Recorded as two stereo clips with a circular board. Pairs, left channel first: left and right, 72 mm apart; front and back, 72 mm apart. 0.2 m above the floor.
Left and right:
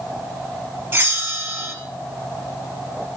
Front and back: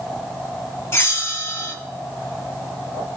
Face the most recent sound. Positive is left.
turn(degrees=-40)